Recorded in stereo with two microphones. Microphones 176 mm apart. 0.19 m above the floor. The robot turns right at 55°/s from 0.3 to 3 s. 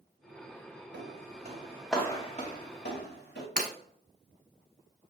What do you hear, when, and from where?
0.9 s footsteps: 80° right, 1.1 m; by 3.5 s 85° left, 1.6 m
3.6 s breaking glass: 50° right (ahead or behind), 1.0 m